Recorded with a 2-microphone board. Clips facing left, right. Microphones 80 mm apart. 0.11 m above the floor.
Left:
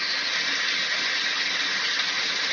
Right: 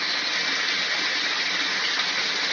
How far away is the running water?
About 0.8 m.